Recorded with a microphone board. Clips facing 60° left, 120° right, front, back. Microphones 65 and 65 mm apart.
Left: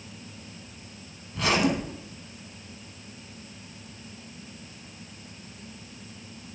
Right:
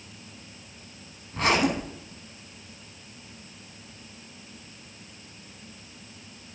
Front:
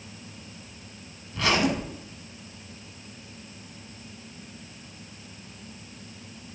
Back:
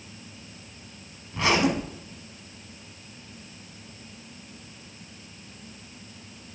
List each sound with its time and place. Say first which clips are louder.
1.3 s a zipper: right 1 dB, back 1 dB; 120° right, 1.1 m